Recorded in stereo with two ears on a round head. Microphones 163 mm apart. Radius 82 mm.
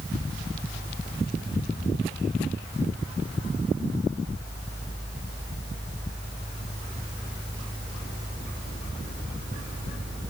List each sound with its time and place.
Only background noise.